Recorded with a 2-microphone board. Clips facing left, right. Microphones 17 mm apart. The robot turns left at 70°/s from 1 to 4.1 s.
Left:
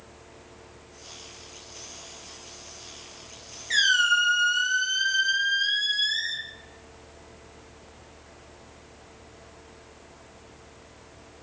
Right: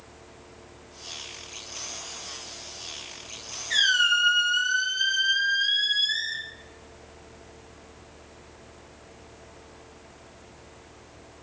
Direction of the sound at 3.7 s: 35° left (ahead or behind).